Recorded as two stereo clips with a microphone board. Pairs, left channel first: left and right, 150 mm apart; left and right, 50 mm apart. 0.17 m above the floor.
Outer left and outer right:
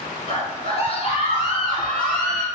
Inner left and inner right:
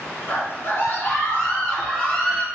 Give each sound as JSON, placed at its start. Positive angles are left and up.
{"t": 0.3, "sound": "a scream", "side_deg": 45, "distance_m": 1.7}